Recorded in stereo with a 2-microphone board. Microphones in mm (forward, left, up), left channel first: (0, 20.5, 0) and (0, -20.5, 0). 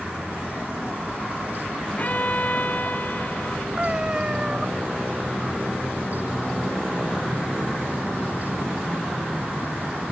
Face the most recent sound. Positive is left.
turn(degrees=-20)  # may be behind; listen again after turning